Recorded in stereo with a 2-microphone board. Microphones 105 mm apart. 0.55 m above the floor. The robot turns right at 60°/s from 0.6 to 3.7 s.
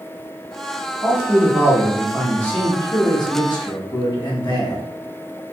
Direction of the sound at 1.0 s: 65° right.